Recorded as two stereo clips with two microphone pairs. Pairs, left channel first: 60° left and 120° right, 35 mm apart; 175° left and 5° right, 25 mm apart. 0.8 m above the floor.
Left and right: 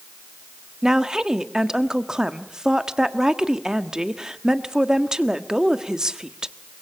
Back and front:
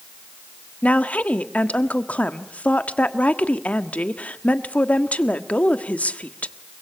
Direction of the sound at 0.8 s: 170° left.